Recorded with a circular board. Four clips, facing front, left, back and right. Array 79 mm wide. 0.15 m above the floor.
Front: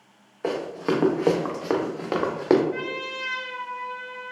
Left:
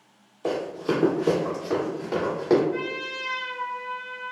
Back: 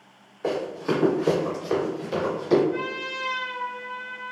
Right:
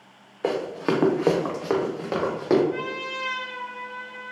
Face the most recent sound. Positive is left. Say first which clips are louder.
# even, back 1 dB
turn(degrees=-105)